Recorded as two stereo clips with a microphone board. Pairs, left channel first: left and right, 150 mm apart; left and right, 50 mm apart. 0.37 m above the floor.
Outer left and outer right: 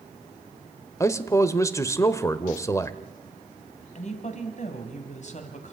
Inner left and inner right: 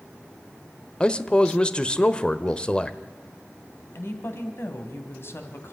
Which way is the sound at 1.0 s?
20° left (ahead or behind).